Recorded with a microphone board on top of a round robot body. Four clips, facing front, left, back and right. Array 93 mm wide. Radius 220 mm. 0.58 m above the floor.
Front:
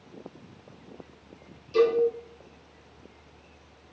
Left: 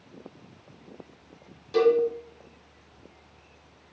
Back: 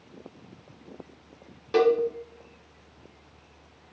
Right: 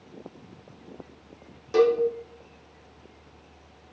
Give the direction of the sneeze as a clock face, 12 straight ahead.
No sneeze in this recording.